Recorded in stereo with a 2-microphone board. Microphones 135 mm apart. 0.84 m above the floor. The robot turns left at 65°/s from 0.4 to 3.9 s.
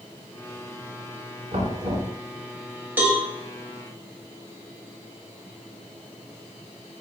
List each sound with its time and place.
1.5 s knocking: 80° right, 5.5 m; by 2.1 s 115° right, 5.5 m
3.0 s a cowbell: 15° right (ahead or behind), 3 m; by 3.2 s centre (ahead or behind), 3 m